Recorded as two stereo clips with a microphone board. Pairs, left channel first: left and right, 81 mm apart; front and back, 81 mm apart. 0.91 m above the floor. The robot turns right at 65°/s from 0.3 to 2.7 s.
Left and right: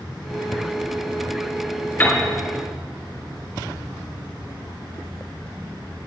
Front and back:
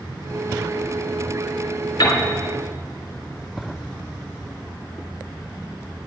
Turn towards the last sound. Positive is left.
turn(degrees=65)